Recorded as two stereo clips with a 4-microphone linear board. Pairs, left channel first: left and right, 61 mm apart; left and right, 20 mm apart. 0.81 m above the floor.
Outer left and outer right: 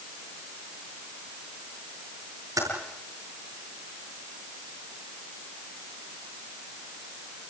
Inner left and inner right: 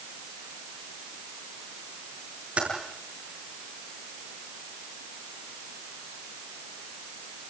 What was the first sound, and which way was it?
Typing on a keyboard, 70° right (ahead or behind).